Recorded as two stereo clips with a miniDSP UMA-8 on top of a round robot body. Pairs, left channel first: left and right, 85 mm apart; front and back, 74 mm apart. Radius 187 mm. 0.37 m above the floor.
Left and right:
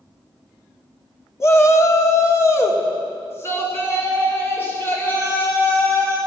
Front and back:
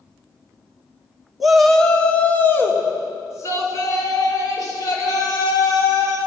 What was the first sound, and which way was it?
A shout, 95° left.